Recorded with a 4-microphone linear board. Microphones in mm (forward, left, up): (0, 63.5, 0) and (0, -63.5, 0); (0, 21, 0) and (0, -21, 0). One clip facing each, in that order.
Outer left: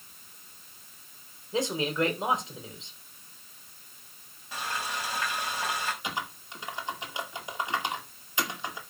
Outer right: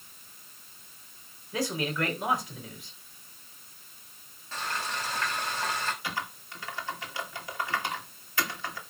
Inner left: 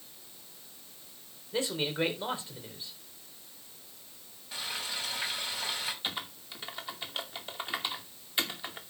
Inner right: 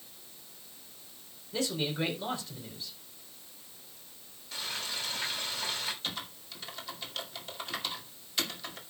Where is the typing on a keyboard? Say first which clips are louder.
Outer left 1 dB, inner left 2 dB; 20° left (ahead or behind), 2.5 m.